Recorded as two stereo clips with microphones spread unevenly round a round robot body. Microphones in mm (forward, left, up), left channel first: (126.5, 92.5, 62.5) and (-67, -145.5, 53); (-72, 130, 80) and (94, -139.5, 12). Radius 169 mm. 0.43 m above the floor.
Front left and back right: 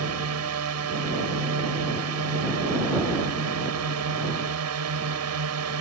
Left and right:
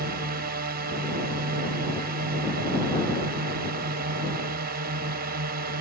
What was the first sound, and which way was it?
A drone, 105° right.